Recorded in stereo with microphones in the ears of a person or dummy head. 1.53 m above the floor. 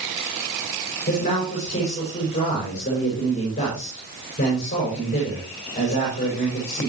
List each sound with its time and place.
1.1 s a man speaking: 35° left (ahead or behind), 6 m